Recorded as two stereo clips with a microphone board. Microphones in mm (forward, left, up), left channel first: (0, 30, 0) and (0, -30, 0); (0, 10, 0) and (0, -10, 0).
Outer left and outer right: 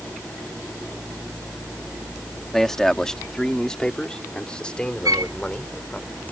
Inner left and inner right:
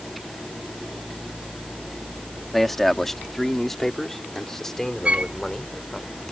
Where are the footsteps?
I don't hear footsteps.